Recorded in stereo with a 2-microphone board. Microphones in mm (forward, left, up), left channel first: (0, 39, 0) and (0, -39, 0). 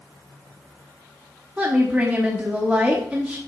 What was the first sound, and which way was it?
A woman speaking, 15° right (ahead or behind).